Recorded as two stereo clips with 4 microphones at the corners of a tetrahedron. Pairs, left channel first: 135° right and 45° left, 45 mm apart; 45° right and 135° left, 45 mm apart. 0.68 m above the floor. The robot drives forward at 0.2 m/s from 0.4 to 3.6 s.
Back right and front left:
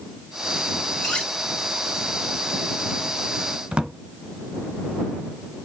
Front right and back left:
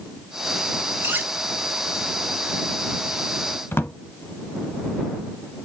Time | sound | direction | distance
1.0 | cutlery clinking | 150° left | 1.7 m
3.7 | a drawer | 25° right | 0.9 m